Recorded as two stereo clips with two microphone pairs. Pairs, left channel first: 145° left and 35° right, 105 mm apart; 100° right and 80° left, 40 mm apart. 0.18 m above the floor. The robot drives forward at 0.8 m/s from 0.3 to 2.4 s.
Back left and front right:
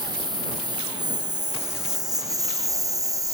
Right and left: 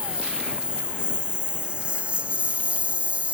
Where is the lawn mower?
10° left; by 3.3 s 20° left.